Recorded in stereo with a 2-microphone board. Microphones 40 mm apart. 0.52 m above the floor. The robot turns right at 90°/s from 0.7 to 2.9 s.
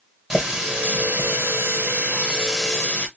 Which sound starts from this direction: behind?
A running tap, at 0.3 s.